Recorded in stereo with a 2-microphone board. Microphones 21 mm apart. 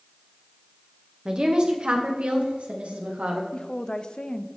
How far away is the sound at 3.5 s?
About 0.7 m.